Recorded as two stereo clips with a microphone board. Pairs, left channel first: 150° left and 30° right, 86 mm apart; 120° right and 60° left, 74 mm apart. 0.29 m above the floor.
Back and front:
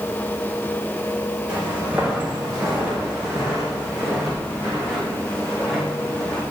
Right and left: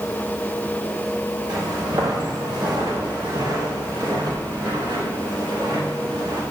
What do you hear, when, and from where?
1.5 s footsteps: 50° left, 7.5 m; by 6.4 s 70° left, 6.5 m